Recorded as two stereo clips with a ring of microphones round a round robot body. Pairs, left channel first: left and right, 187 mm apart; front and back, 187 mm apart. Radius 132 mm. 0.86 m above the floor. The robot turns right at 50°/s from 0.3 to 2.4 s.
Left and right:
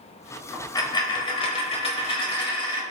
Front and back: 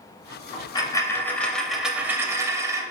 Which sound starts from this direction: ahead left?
A dropped coin, at 0.5 s.